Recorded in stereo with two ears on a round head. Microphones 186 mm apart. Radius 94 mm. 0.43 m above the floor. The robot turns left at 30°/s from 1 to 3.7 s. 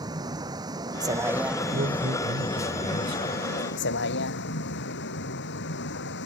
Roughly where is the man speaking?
Right.